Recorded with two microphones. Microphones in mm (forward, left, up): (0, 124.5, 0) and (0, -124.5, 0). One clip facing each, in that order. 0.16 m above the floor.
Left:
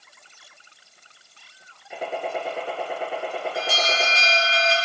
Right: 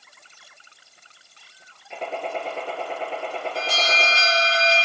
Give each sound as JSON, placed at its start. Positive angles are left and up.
{"t": 1.9, "sound": "a gunshot", "side_deg": 10, "distance_m": 1.4}
{"t": 3.5, "sound": "an alarm", "side_deg": 10, "distance_m": 4.0}